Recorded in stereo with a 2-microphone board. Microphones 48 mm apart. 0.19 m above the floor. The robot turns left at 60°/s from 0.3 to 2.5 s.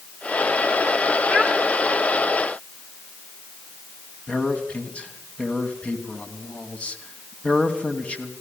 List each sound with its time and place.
1.3 s a child speaking: 25° left (ahead or behind), 1.5 m; by 1.5 s 10° left (ahead or behind), 1.5 m
4.3 s a man speaking: 25° left (ahead or behind), 1.7 m